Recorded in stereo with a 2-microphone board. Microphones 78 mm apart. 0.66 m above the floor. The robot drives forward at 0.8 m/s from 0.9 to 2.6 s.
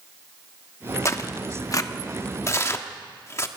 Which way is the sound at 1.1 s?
35° left (ahead or behind).